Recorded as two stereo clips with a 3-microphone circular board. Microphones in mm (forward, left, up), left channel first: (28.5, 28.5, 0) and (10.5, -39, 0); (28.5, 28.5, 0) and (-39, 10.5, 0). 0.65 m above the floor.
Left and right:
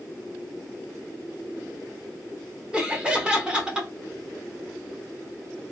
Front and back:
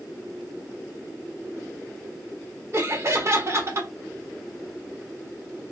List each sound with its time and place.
2.7 s laughter: 175° right, 0.7 m